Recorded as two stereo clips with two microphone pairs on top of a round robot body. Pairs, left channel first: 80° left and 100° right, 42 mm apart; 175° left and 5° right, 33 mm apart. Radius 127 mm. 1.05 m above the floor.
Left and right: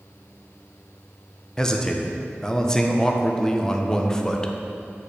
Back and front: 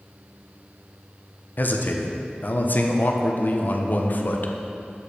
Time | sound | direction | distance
1.6 | a man speaking | 155° left | 0.9 m